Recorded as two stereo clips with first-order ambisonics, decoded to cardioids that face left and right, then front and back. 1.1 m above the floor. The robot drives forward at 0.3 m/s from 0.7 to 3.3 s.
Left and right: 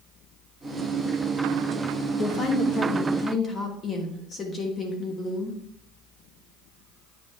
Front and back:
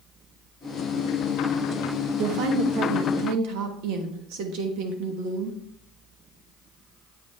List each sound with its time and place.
2.2 s a woman speaking: 150° left, 1.1 m; by 5.6 s 155° left, 1.4 m